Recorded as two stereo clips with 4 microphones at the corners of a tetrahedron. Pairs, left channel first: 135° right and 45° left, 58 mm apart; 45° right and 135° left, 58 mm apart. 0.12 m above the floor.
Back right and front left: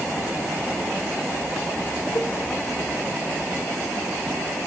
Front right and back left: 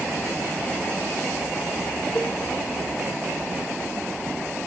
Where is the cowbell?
115° right, 2.0 m.